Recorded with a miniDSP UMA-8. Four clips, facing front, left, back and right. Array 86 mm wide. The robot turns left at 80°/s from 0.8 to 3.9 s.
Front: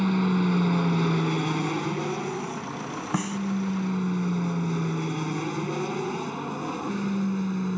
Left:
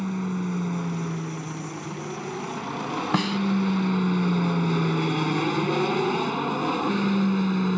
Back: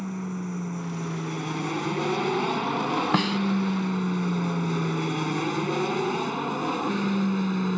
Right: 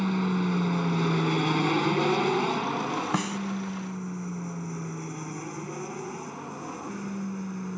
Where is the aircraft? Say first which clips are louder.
Right 2 dB, front 9 dB; 20° right; by 7.8 s 120° left.